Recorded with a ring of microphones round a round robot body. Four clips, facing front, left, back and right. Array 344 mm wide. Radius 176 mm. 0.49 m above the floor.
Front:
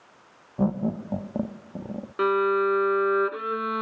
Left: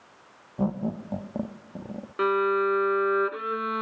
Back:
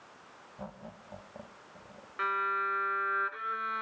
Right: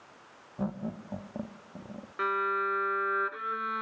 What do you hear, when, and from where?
0.6 s laughter: 20° left
2.2 s a violin: 30° left